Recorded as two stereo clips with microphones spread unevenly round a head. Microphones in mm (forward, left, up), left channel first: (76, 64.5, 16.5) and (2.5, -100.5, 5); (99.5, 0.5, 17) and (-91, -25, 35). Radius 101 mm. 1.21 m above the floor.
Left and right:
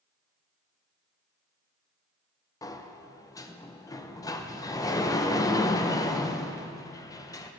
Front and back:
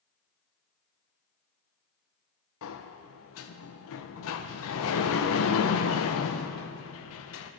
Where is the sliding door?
5° right, 0.5 m.